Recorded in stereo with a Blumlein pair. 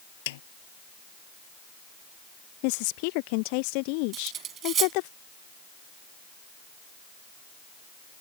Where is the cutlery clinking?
30° right.